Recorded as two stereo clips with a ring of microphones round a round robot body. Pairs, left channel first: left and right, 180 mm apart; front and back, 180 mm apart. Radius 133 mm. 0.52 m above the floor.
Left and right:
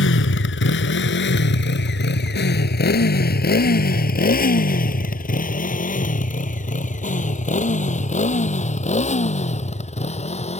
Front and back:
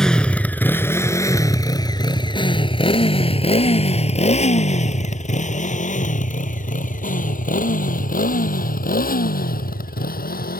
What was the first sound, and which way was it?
A motorcycle, 85° left.